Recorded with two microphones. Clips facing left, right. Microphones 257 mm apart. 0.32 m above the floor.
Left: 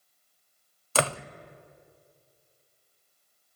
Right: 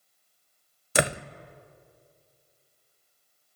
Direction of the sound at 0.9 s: 20° right (ahead or behind).